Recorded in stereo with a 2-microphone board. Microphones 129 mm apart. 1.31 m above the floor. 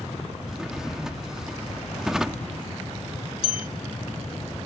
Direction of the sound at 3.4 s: 55° left (ahead or behind).